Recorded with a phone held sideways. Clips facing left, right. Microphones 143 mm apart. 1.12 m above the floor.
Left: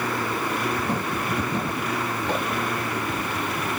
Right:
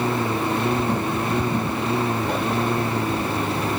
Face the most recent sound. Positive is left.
turn(degrees=-30)  # may be behind; listen again after turning